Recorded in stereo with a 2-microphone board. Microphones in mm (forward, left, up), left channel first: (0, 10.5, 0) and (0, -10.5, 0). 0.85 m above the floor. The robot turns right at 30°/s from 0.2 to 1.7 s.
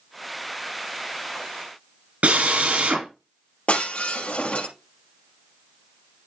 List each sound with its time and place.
2.2 s a drill: 85° right, 4.5 m
3.7 s breaking glass: 75° left (ahead or behind), 3.5 m